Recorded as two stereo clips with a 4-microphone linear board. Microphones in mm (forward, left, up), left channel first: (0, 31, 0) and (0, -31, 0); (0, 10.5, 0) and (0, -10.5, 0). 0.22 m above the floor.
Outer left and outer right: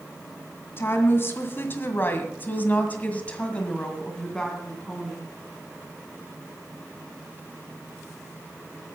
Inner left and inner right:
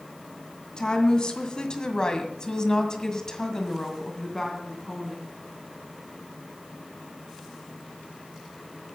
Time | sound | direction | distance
0.8 | a woman speaking | 40° left (ahead or behind) | 2 m